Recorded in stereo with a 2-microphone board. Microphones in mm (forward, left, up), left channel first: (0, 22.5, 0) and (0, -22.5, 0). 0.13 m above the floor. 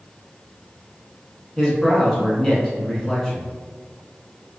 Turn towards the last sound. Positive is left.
turn(degrees=10)  # may be behind; listen again after turning